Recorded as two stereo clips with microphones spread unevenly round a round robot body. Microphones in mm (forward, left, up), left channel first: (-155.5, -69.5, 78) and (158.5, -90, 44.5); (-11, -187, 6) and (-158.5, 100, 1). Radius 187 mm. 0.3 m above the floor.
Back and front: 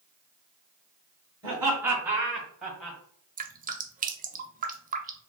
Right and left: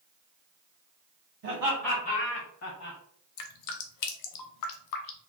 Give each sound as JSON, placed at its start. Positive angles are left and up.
{"t": 1.4, "sound": "laughter", "azimuth_deg": 65, "distance_m": 1.1}
{"t": 3.4, "sound": "dripping", "azimuth_deg": -65, "distance_m": 0.5}